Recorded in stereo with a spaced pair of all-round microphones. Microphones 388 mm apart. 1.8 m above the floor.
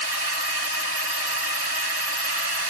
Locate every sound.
0.0 s a drone: 75° right (ahead or behind)